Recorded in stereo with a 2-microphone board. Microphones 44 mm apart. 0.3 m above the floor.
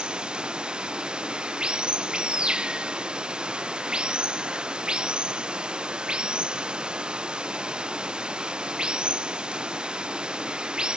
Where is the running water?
20° right (ahead or behind).